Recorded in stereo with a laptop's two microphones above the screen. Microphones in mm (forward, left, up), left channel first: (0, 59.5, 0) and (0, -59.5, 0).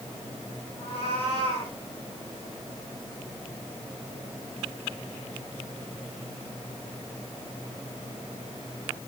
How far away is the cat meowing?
About 7 m.